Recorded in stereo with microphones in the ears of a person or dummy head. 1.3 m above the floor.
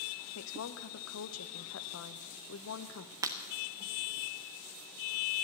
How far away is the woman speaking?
About 0.9 m.